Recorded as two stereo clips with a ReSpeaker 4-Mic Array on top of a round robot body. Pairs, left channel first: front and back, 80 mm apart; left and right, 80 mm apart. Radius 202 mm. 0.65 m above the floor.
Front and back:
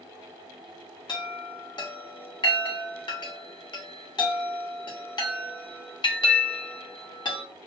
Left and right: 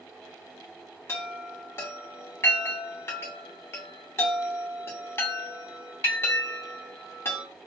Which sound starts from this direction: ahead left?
A chime, at 1.1 s.